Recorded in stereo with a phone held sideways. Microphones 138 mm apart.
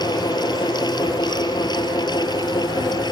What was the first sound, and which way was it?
A fan, 30° left (ahead or behind).